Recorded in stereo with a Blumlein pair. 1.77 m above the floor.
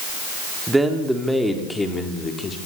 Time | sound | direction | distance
0.7 | a man speaking | 10° right | 4.5 m